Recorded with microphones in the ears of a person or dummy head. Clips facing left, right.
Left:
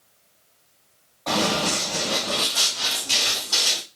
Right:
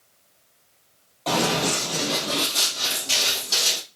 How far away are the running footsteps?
About 2 m.